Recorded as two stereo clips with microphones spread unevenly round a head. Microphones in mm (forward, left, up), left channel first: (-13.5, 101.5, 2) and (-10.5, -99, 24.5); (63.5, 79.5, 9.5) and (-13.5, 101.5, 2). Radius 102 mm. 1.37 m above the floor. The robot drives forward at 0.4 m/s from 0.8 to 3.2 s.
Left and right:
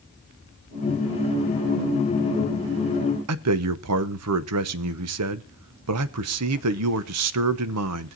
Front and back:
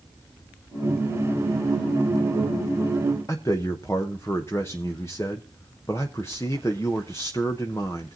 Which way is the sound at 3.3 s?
95° right.